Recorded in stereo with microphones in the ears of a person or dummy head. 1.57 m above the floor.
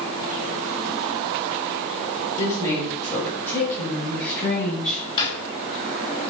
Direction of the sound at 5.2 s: 30° left (ahead or behind).